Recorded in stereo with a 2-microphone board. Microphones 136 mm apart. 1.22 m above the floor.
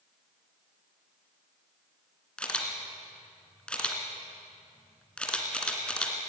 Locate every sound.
2.4 s a camera shutter: 5° left (ahead or behind), 2.5 m